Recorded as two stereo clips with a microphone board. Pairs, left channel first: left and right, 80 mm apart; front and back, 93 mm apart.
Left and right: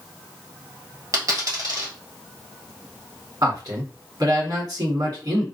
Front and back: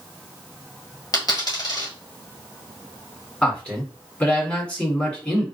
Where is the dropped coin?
45° right, 1.6 m.